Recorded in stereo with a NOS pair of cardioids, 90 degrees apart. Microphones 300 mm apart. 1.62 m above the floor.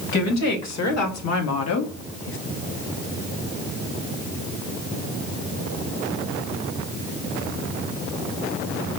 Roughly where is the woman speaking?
Ahead left.